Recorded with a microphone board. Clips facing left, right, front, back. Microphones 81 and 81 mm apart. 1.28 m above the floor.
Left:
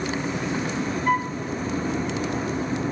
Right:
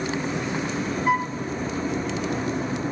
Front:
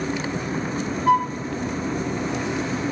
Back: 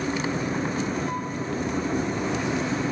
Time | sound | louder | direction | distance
1.1 | a flute | even, front 11 dB | 5° right | 0.8 m